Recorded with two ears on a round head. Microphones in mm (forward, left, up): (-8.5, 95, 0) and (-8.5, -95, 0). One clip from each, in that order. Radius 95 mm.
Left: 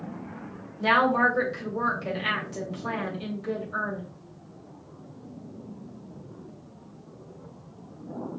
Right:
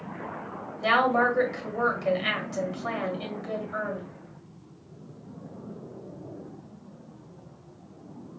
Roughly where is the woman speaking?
Centre.